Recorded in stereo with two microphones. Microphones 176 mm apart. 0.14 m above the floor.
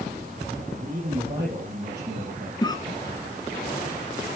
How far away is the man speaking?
About 5.5 m.